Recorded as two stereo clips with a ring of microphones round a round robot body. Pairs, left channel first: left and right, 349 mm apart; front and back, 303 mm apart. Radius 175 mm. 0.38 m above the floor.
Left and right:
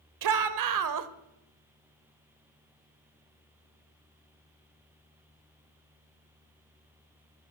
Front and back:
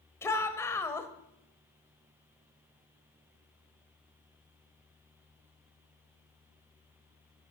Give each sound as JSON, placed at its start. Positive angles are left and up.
{"t": 0.2, "sound": "a shout", "azimuth_deg": -80, "distance_m": 1.3}